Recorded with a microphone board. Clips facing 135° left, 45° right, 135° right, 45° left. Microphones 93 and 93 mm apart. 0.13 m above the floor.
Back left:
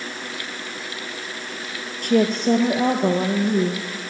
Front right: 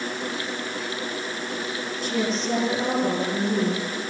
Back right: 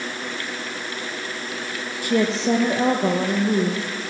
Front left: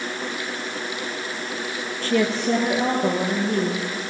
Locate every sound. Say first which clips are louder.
2.0 s a woman speaking: back left 8 dB, back right 1 dB; 150° left, 3.5 m; by 3.8 s 175° left, 5.5 m